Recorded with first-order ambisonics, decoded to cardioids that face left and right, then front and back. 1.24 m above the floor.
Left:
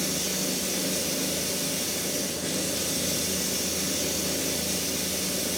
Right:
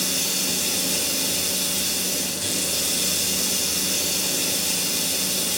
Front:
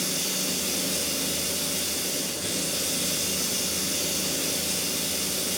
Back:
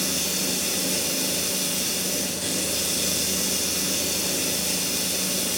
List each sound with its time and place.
0.0 s running water: 115° right, 6.5 m